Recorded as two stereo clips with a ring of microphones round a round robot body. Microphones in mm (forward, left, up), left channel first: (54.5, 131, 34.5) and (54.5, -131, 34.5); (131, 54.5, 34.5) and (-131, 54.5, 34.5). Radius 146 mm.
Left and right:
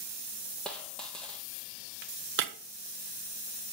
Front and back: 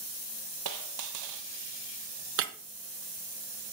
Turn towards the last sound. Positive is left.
turn(degrees=-140)